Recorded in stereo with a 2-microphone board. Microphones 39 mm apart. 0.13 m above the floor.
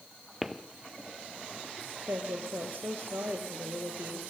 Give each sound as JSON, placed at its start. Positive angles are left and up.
{"t": 0.4, "sound": "footsteps", "side_deg": -5, "distance_m": 1.4}
{"t": 2.1, "sound": "a woman speaking", "side_deg": -65, "distance_m": 4.0}